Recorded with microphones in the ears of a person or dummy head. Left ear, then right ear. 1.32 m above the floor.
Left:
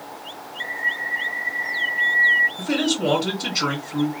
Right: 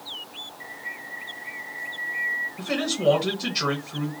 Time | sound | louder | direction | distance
0.6 | a bird | left 15 dB | 55° left (ahead or behind) | 0.7 m
2.6 | a man speaking | left 3 dB | 5° right (ahead or behind) | 1.2 m